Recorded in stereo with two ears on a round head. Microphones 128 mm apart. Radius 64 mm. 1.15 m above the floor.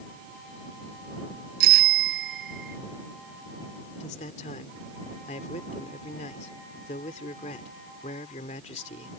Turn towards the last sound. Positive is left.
turn(degrees=50)  # may be behind; listen again after turning